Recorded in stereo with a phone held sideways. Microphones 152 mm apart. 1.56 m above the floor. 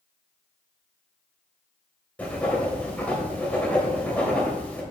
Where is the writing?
10° left (ahead or behind), 3 m.